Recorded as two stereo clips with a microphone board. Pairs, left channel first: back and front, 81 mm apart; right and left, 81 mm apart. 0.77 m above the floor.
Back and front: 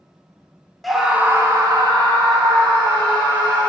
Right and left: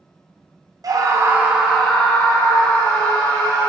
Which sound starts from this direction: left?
A scream, at 0.8 s.